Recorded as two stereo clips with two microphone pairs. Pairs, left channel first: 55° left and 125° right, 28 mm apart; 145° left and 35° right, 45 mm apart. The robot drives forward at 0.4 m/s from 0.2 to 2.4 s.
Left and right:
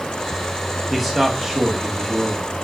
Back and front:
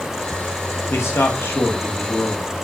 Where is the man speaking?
150° left, 1.2 m; by 2.5 s 160° left, 1.8 m.